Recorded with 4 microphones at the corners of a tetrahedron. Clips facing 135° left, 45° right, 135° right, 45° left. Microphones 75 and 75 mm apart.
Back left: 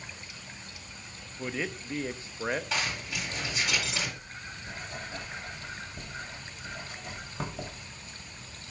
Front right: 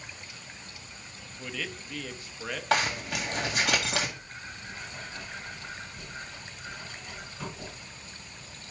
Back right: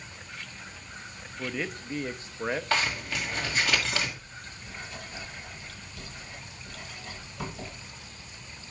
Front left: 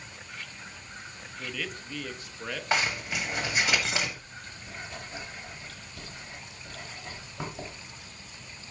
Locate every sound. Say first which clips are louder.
1.4 s a man speaking: back left 4 dB, back right 4 dB; straight behind, 0.5 m
2.7 s a zipper: front right 6 dB, even; 25° right, 1.8 m
4.2 s writing: even, even; 105° left, 2.5 m